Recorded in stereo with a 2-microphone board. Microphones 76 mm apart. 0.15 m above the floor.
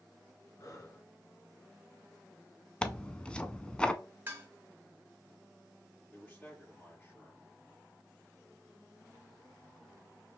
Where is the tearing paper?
15° left (ahead or behind), 0.5 m.